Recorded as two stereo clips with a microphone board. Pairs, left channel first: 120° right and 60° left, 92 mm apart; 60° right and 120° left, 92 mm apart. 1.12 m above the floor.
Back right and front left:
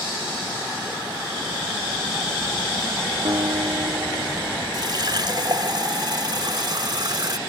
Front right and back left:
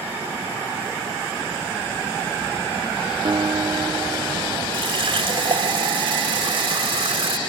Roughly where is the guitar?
Left.